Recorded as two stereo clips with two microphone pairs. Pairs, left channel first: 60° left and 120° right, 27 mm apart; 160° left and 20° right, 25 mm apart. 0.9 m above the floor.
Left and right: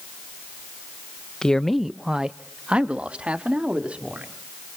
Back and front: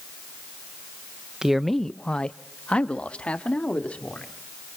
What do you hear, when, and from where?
1.4 s a man speaking: 15° left, 0.6 m; by 4.3 s 165° right, 2.5 m